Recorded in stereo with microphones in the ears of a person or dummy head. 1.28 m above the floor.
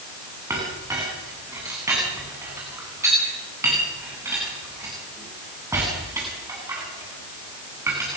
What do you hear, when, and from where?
0.5 s a clink: 15° right (ahead or behind), 8 m